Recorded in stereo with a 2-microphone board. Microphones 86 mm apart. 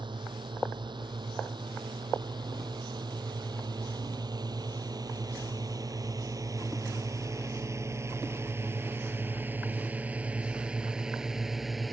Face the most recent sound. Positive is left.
turn(degrees=0)  # may be behind; listen again after turning